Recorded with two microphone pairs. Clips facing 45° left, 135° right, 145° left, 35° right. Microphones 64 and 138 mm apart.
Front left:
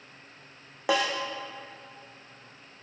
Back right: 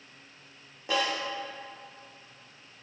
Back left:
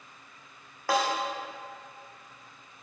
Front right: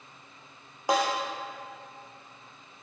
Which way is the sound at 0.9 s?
35° left.